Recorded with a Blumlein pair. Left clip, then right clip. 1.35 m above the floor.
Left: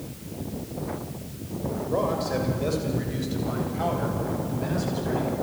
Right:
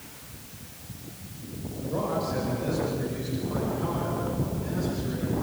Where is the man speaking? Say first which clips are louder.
Left 3 dB; 20° left, 6.5 m; by 5.3 s 40° left, 10.5 m.